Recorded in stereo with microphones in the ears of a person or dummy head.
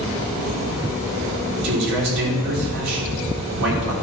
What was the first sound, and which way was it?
A man speaking, 70° right (ahead or behind).